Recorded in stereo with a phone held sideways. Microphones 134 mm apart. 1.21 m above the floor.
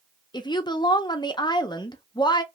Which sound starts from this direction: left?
A woman speaking, at 0.3 s.